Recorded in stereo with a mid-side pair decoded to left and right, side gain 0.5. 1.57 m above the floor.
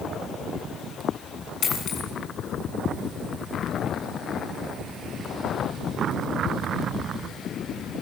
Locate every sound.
1.6 s a dropped coin: 60° left, 7 m